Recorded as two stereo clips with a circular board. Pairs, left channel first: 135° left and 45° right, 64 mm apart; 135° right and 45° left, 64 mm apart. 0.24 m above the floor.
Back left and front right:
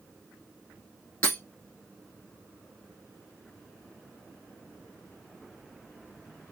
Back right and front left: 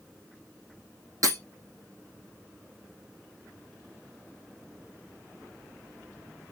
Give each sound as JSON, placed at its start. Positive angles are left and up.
{"t": 1.2, "sound": "breaking glass", "azimuth_deg": 75, "distance_m": 3.0}